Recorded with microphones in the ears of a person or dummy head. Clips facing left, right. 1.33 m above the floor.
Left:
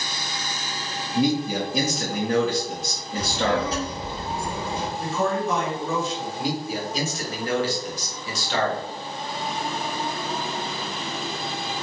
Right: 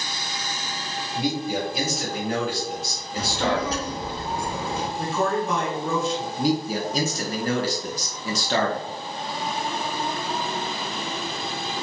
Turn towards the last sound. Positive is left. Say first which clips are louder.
# right 6 dB
turn(degrees=-40)  # may be behind; listen again after turning